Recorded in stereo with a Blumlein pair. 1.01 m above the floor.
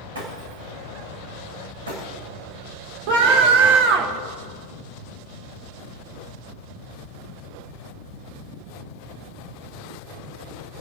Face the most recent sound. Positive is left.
turn(degrees=-45)